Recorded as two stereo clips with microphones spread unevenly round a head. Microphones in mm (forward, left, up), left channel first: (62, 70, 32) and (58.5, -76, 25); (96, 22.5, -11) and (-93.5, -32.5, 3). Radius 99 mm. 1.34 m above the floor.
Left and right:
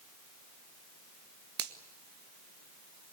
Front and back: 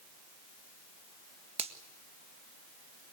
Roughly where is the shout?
No shout in this recording.